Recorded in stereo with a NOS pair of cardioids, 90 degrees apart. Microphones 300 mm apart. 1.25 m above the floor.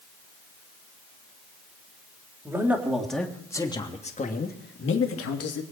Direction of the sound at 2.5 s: 10° right.